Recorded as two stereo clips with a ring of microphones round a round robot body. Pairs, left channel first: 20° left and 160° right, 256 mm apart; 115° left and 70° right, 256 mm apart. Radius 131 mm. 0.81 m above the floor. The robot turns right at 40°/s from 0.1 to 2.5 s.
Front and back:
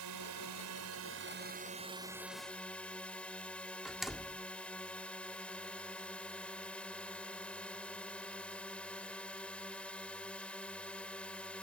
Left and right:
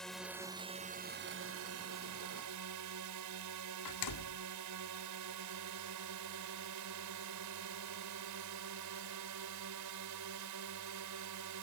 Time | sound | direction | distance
0.0 | a drone | 160° right | ?
3.9 | a door slam | 115° left | ?